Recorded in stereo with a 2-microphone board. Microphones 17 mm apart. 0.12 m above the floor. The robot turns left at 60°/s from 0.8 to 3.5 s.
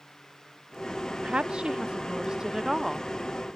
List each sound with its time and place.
1.2 s a woman speaking: 75° right; by 3.1 s 175° left